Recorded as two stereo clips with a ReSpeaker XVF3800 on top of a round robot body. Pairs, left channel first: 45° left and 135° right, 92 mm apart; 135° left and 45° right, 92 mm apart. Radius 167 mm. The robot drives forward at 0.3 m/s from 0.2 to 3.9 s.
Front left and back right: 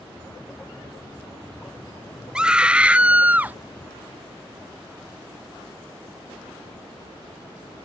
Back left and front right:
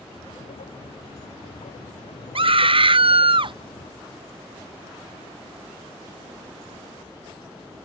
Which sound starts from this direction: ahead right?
A scream, at 2.4 s.